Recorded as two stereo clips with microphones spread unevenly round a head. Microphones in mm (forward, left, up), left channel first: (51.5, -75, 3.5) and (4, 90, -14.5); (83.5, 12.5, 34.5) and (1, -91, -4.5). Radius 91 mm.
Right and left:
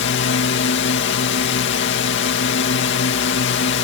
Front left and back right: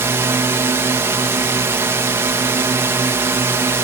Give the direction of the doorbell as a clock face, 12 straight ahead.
I don't hear a doorbell.